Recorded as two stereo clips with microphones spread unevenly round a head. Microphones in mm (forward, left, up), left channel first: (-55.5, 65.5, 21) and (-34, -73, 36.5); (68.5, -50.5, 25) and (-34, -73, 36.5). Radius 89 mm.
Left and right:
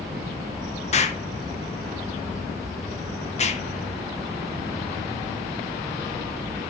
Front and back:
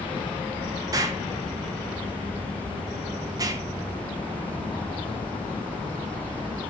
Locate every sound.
0.9 s an explosion: 130° left, 1.4 m